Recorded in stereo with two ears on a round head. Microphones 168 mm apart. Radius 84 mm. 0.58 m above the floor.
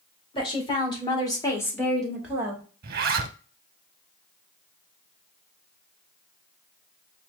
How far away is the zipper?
About 0.6 m.